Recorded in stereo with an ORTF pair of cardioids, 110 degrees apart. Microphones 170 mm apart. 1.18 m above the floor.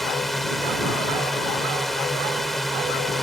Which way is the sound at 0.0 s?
Straight ahead.